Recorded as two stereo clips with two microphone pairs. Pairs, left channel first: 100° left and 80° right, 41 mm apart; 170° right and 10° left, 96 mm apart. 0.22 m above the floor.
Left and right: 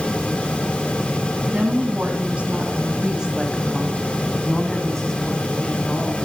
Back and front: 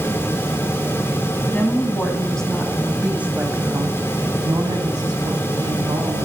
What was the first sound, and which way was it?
A woman speaking, 110° right.